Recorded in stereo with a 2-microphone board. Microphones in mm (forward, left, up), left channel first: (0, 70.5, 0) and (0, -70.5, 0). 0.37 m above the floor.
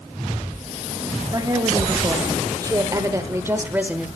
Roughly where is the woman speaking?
Right.